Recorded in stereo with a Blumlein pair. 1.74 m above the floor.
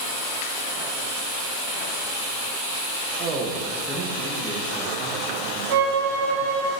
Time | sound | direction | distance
3.2 | a man speaking | 35° right | 1.7 m
5.7 | a violin | 50° right | 2.5 m